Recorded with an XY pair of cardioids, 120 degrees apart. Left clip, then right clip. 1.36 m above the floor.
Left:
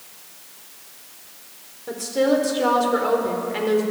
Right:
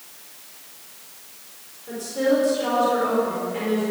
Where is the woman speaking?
50° left, 4.5 m.